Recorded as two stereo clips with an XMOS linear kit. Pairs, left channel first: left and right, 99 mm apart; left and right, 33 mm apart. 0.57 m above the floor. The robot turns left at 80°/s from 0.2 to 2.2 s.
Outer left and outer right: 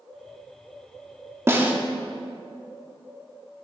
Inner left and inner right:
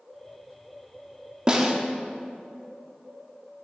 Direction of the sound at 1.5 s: 25° right (ahead or behind).